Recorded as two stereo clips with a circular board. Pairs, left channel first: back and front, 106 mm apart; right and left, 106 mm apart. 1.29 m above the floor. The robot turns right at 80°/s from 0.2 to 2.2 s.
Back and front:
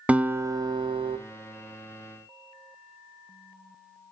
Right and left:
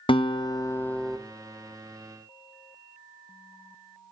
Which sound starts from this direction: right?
A guitar, at 0.1 s.